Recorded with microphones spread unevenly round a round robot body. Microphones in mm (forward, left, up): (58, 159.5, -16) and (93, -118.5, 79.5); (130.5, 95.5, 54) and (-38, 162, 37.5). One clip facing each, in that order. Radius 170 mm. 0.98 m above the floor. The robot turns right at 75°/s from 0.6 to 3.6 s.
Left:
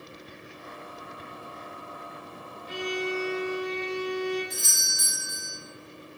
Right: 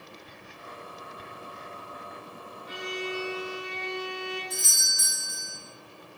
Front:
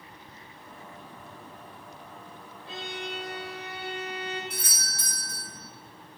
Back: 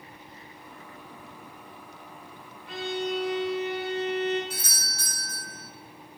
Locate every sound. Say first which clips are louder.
2.7 s a violin: left 5 dB, back 8 dB; 35° left, 1.1 m; by 4.4 s 105° left, 1.1 m
4.5 s a doorbell: even, back 1 dB; 15° left, 2.0 m